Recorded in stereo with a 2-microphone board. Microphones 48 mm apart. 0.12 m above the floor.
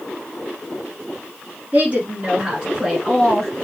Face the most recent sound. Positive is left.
turn(degrees=5)  # may be behind; listen again after turning